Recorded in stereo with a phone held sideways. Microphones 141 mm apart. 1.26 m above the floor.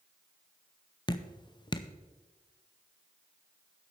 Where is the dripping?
30° left (ahead or behind), 0.5 m.